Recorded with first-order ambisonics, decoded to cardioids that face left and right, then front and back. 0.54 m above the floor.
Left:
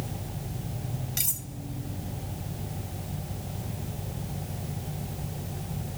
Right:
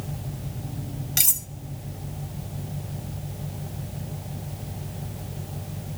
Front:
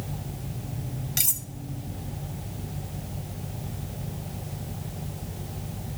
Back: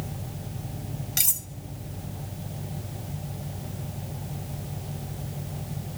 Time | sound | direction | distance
1.2 | cutlery clinking | 100° right | 0.5 m